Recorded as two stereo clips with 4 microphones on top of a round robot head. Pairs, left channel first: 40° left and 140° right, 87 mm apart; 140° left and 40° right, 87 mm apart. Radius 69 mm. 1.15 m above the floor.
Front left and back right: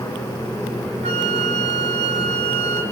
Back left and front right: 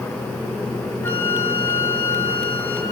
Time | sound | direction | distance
1.0 | a flute | 150° right | 2.5 m